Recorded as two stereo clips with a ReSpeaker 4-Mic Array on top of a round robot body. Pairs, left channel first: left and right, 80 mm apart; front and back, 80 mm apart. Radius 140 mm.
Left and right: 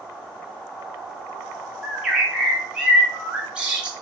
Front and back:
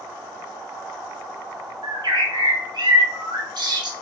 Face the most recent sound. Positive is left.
turn(degrees=-165)